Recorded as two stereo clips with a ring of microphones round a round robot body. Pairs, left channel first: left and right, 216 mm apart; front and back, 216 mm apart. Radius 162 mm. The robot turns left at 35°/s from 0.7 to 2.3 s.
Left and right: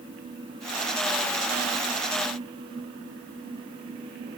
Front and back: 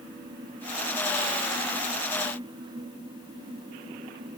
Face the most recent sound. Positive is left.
No sound to turn to.